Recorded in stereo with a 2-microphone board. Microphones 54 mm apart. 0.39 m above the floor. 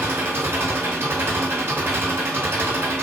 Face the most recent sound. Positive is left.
turn(degrees=-45)  # may be behind; listen again after turning